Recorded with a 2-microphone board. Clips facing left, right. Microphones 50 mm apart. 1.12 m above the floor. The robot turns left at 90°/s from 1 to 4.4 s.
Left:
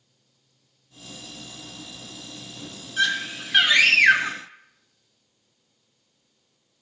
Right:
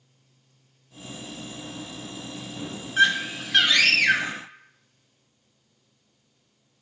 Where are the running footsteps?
No running footsteps in this recording.